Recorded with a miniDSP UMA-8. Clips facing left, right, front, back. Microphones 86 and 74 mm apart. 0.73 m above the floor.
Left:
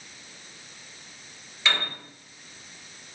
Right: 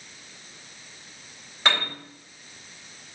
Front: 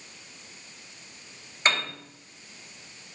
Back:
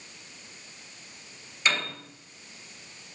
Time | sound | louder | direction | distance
1.6 | a piano | right 3 dB, front 2 dB | 50° right | 3.5 m